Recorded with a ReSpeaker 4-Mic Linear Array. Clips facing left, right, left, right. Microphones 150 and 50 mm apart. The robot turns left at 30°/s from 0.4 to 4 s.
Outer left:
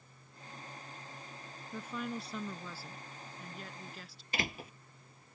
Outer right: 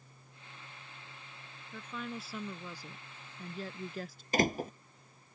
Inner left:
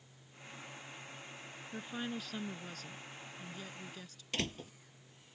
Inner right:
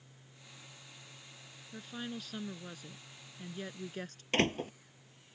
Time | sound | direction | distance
1.7 | a woman speaking | 15° left | ?
4.3 | a door slam | 45° right (ahead or behind) | ?